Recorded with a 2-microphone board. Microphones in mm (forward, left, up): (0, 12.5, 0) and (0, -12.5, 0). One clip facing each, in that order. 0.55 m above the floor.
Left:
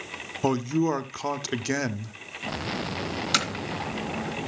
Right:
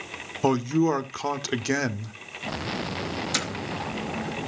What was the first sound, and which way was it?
A man speaking, 5° right (ahead or behind).